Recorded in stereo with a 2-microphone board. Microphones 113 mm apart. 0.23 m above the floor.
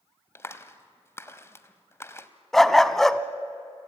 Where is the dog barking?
Centre (ahead or behind), 0.7 m.